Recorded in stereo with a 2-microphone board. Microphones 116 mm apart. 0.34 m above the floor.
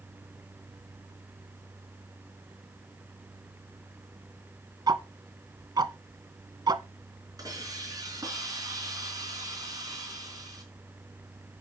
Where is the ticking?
35° right (ahead or behind), 0.6 m.